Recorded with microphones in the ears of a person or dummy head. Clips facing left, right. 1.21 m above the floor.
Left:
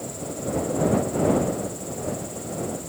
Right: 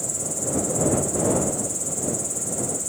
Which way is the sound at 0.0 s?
40° right (ahead or behind).